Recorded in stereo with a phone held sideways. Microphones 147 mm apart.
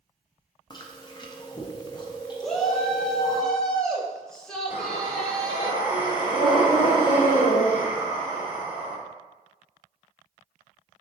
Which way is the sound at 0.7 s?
30° left (ahead or behind).